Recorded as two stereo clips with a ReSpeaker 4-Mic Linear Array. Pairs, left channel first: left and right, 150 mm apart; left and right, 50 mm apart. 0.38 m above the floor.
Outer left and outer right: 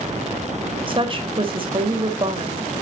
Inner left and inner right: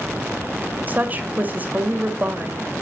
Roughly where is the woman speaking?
Right.